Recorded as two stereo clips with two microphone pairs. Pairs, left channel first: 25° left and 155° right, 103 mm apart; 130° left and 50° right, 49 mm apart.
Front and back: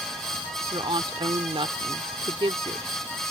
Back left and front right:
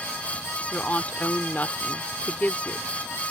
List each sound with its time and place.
0.7 s a woman speaking: 175° left